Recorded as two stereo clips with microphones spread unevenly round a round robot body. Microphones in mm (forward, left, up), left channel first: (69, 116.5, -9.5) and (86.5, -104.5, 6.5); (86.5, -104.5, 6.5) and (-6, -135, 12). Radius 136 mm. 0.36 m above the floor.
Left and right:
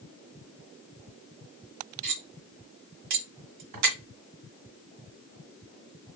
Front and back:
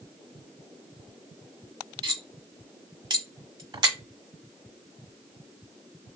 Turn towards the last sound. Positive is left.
turn(degrees=-120)